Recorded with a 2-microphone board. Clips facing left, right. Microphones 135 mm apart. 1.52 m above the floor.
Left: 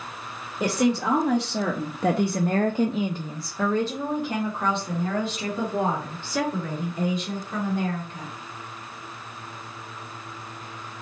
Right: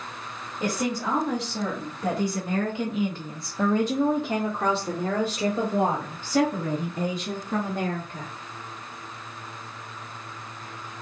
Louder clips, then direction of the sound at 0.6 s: Left 5 dB; 80° left.